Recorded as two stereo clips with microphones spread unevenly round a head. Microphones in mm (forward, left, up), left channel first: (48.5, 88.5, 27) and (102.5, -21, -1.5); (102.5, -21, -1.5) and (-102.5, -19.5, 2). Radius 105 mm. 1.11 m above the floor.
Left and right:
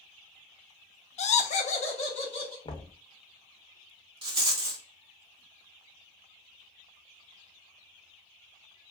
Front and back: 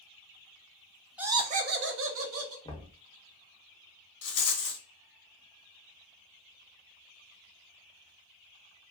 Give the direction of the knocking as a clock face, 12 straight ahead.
10 o'clock.